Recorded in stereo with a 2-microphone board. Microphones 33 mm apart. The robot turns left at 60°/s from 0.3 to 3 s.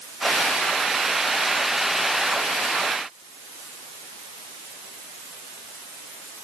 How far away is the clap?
No clap in this recording.